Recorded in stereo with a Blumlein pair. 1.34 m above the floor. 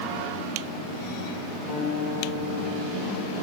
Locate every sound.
1.7 s a guitar: 30° left, 3 m